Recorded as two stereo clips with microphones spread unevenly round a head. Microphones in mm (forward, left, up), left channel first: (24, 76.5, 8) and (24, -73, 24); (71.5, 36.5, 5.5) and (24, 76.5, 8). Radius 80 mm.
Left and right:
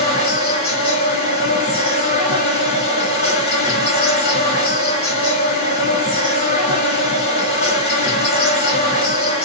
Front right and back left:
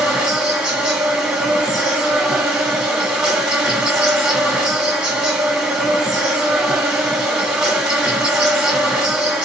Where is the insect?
60° left, 1.6 m.